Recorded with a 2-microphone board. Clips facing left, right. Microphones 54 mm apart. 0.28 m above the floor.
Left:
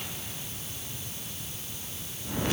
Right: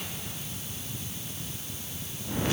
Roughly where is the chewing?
No chewing in this recording.